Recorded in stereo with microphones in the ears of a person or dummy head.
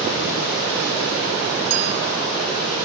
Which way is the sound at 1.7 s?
75° right (ahead or behind).